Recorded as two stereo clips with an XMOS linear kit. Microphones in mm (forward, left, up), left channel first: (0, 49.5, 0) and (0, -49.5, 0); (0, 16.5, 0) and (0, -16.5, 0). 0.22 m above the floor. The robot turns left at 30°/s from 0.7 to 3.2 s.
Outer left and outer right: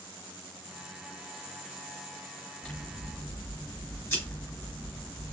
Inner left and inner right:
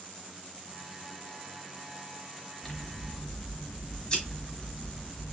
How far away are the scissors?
About 4 m.